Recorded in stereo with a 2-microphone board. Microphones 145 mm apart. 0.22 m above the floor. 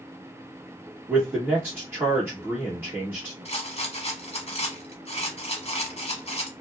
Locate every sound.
1.1 s a man speaking: 15° right (ahead or behind), 1.2 m
3.5 s a rattle: 45° left (ahead or behind), 0.9 m